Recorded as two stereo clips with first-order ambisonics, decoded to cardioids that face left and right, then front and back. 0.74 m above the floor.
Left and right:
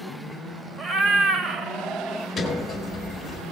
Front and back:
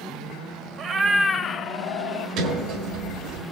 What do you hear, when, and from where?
0.8 s a cat meowing: 150° right, 0.6 m; by 2.3 s 20° right, 1.0 m
2.4 s a sliding door: 165° left, 1.2 m